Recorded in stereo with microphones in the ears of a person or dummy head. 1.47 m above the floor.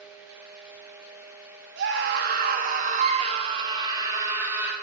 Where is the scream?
75° right (ahead or behind), 2 m; by 4.7 s 10° right (ahead or behind), 2.5 m.